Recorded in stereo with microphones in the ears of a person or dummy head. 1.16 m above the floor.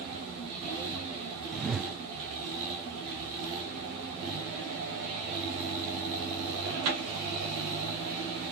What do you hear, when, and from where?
1.5 s a whoosh: centre (ahead or behind)